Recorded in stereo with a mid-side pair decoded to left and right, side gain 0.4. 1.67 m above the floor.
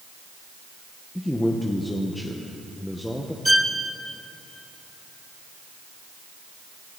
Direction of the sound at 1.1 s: 10° left.